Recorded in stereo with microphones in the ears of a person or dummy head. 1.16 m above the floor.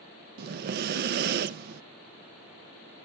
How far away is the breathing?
About 0.5 m.